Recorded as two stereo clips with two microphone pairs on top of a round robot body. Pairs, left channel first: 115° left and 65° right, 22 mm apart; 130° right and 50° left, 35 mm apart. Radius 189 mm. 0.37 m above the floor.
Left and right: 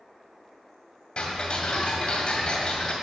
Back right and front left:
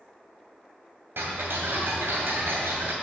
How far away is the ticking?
About 2 m.